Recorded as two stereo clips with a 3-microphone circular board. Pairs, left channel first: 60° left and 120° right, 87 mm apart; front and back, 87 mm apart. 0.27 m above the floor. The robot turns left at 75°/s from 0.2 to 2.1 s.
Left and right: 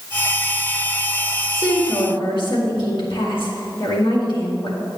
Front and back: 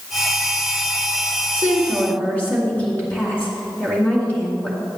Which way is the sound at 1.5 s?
115° left.